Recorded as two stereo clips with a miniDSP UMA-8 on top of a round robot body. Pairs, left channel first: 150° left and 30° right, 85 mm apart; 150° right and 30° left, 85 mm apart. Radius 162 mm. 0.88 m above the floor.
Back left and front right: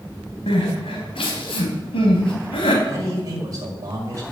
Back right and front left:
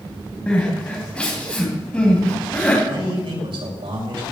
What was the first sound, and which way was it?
Crying, 130° left.